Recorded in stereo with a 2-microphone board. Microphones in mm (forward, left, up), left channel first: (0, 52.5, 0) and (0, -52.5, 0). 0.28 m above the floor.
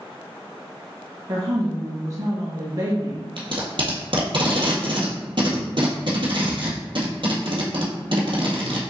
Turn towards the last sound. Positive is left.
turn(degrees=-55)  # may be behind; listen again after turning